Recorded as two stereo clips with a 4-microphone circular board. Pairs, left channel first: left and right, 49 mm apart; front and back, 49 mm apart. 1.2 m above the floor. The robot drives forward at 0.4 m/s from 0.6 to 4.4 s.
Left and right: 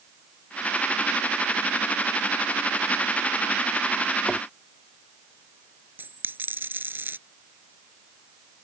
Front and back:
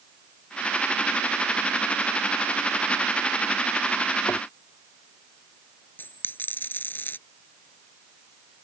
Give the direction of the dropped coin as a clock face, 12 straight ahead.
1 o'clock.